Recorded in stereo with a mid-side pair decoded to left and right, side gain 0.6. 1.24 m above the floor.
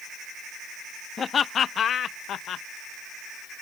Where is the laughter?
40° left; by 2.6 s 60° left.